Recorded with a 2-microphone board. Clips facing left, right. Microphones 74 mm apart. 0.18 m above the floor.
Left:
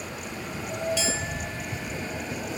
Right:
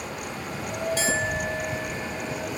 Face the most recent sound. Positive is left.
turn(degrees=-40)  # may be behind; listen again after turning